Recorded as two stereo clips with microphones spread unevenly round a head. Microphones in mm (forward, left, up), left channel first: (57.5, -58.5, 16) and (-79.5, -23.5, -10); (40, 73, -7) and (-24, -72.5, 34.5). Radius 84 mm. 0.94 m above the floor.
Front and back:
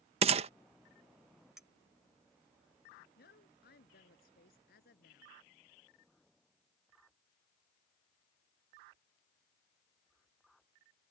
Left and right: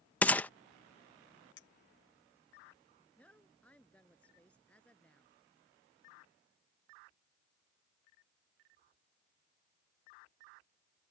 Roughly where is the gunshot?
Behind left.